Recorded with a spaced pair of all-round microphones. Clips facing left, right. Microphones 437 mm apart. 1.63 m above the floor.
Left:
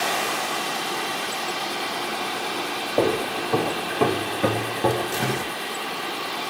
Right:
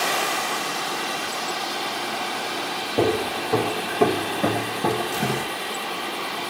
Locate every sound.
3.0 s footsteps: 25° right (ahead or behind), 1.9 m; by 5.5 s 15° left (ahead or behind), 1.7 m